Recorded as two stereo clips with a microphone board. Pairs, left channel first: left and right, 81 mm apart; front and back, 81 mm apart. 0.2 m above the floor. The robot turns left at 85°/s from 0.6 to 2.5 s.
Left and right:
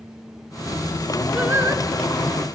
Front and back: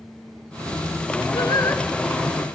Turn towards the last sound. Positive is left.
turn(degrees=-115)